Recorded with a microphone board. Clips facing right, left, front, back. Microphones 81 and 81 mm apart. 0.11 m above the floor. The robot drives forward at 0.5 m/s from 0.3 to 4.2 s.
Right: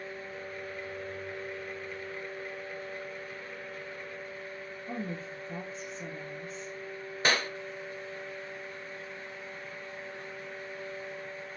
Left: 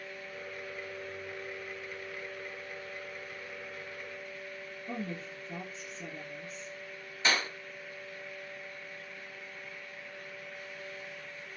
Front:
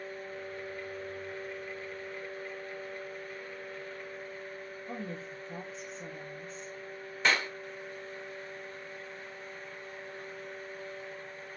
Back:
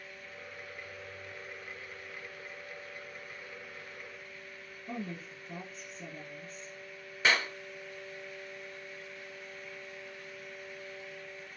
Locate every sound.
4.9 s a woman speaking: 145° left, 3 m
7.2 s a clap: 100° right, 1.3 m